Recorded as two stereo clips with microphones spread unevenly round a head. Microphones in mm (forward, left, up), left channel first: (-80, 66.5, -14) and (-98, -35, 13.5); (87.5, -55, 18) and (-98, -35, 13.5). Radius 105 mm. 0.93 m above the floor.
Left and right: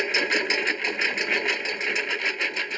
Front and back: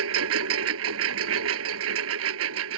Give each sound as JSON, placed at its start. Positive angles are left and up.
{"t": 0.0, "sound": "a lawn mower", "azimuth_deg": 175}